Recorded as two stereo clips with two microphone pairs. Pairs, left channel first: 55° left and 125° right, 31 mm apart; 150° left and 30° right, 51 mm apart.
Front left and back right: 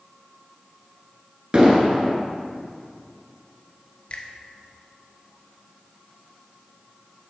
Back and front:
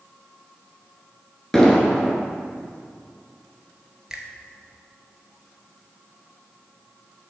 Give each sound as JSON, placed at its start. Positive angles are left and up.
{"t": 1.5, "sound": "an explosion", "azimuth_deg": -135, "distance_m": 1.8}
{"t": 4.1, "sound": "a finger snap", "azimuth_deg": 45, "distance_m": 1.4}